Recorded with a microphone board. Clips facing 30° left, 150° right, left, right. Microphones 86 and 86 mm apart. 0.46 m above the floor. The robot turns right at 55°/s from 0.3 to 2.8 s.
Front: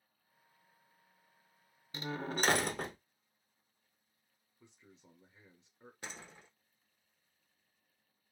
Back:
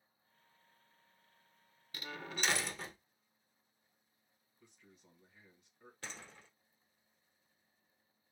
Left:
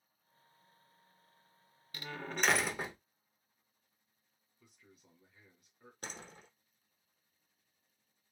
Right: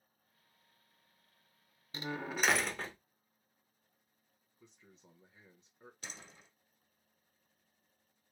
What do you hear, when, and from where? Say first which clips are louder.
1.9 s a door slam: front 6 dB, right 2 dB; 30° right, 0.6 m; by 3.0 s 15° left, 0.6 m
4.6 s a man speaking: front 3 dB, right 3 dB; 30° right, 1.3 m
6.0 s a door slam: front 1 dB, left 5 dB; 95° left, 1.1 m